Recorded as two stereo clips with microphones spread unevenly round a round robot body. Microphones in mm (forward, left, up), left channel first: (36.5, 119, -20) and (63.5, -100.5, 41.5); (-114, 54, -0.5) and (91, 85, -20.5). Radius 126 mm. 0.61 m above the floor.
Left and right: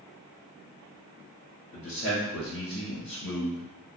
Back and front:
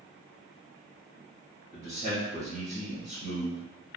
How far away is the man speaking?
About 1.8 m.